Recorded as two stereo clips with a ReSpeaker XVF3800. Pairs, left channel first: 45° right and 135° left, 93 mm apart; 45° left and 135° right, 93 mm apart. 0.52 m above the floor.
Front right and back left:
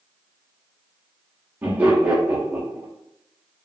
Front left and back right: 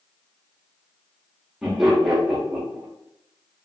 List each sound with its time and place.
1.6 s laughter: 145° left, 0.6 m